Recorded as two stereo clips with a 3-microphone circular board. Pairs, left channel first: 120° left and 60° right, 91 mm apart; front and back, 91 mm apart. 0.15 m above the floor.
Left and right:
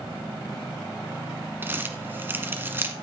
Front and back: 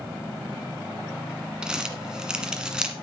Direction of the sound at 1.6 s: 105° right.